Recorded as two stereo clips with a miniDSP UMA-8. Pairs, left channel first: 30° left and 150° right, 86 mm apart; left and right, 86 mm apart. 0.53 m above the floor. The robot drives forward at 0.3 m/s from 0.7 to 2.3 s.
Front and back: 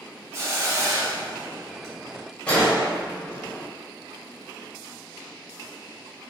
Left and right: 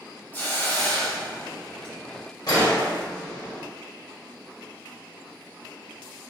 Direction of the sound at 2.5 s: 100° left.